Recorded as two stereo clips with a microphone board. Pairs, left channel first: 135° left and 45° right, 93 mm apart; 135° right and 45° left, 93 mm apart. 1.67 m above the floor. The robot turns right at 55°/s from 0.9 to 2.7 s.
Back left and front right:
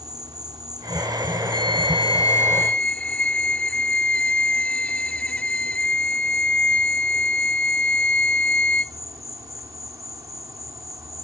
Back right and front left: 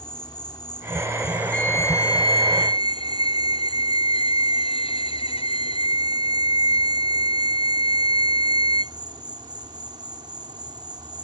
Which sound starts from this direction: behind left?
A violin, at 1.5 s.